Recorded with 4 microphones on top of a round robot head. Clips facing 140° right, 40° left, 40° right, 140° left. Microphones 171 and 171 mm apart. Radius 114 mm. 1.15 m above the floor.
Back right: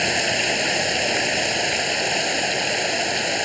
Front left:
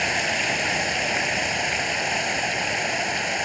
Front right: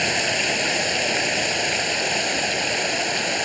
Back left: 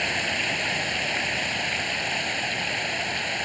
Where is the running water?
85° right.